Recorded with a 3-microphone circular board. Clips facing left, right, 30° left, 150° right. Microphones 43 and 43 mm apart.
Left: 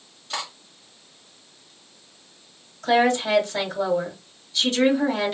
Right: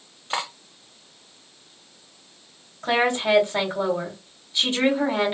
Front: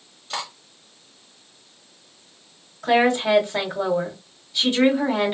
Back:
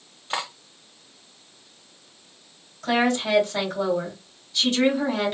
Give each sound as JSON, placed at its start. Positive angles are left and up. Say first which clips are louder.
{"t": 0.3, "sound": "cutlery clinking", "louder": "right 4 dB, back 2 dB", "azimuth_deg": -110, "distance_m": 0.8}
{"t": 2.8, "sound": "a woman speaking", "louder": "left 2 dB, front 4 dB", "azimuth_deg": -45, "distance_m": 1.9}